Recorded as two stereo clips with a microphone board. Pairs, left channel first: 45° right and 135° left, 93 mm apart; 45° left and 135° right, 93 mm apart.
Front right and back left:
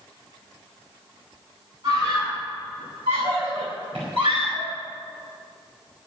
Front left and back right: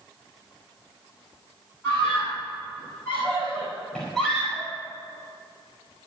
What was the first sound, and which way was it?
A scream, 105° left.